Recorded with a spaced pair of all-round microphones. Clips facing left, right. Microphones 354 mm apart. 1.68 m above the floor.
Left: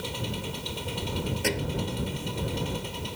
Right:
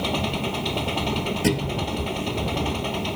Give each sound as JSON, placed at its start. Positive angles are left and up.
{"t": 0.0, "sound": "an engine running", "side_deg": -80}
{"t": 1.4, "sound": "a thud", "side_deg": -50}